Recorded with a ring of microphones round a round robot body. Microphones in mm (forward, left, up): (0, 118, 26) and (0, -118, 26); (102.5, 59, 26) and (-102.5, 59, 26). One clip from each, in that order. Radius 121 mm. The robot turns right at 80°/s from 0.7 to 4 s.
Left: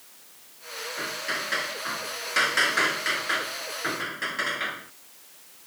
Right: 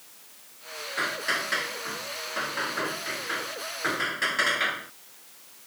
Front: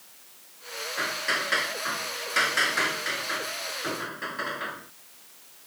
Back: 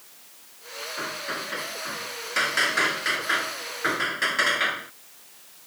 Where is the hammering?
45° right; by 4.9 s 160° right.